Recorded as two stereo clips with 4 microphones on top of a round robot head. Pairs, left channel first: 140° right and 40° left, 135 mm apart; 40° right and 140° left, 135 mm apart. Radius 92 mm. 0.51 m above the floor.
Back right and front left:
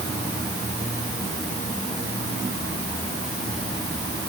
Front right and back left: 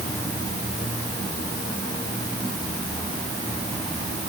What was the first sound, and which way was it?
Only background noise.